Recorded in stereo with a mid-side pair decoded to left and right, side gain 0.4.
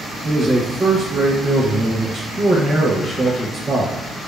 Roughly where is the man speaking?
Ahead right.